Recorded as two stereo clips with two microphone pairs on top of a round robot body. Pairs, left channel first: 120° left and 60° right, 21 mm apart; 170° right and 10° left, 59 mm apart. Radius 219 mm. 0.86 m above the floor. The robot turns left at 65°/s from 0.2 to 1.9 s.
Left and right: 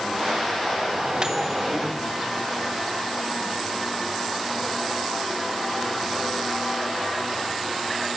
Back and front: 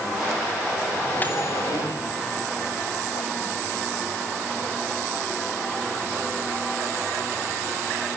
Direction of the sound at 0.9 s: 85° right.